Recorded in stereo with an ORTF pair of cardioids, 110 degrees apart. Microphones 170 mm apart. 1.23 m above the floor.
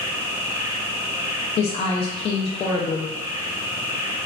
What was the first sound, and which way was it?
An insect, 20° right.